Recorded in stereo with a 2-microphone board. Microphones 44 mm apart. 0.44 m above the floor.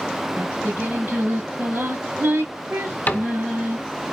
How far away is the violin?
I don't hear a violin.